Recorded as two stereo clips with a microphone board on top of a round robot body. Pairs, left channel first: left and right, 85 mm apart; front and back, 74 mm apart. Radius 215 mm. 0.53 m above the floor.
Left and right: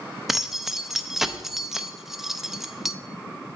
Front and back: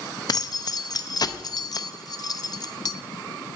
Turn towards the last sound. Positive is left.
turn(degrees=-5)